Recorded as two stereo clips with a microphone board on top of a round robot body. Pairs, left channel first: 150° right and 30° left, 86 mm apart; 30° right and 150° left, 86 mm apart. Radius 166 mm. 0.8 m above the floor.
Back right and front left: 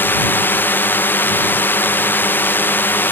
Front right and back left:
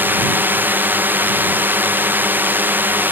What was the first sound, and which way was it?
A drone, 175° right.